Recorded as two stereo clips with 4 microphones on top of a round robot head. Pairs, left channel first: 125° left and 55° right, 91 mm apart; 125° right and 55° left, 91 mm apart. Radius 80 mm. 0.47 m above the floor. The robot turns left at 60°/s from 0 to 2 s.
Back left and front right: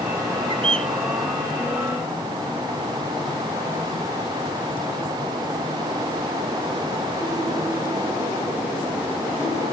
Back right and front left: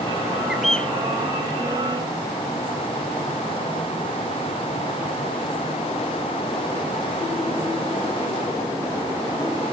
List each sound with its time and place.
0.5 s a bird: 25° right; by 0.9 s 50° right